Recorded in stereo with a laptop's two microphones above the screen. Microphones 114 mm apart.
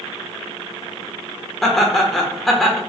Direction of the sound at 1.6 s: 5° left (ahead or behind).